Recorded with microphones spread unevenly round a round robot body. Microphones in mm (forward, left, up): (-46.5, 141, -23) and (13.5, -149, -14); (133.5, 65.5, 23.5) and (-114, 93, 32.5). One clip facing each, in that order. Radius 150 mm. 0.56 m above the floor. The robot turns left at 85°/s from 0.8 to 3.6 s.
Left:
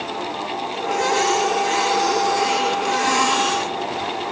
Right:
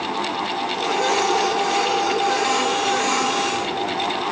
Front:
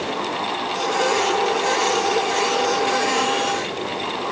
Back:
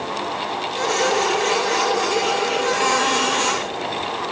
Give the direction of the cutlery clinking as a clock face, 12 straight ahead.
I don't hear cutlery clinking.